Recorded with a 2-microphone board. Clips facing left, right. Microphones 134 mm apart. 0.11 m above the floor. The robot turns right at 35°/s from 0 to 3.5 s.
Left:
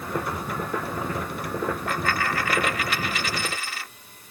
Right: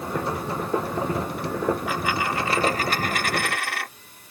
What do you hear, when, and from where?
1.9 s a dropped coin: 175° right; by 3.9 s 120° right